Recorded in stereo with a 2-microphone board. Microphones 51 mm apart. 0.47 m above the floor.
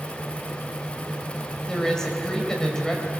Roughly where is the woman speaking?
Centre.